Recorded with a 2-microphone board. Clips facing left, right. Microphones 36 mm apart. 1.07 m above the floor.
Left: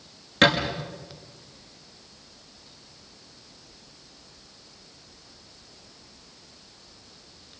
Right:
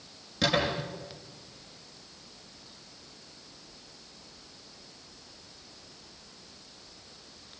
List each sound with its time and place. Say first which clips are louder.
0.4 s a thud: left 7 dB; 60° left (ahead or behind), 6.5 m